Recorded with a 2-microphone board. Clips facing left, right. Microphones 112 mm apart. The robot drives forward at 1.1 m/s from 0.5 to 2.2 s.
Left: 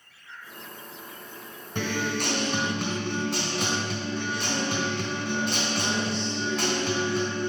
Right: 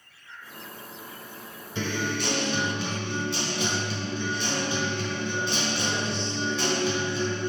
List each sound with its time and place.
1.8 s a guitar: 55° left (ahead or behind), 2.5 m; by 7.5 s 50° left (ahead or behind), 3 m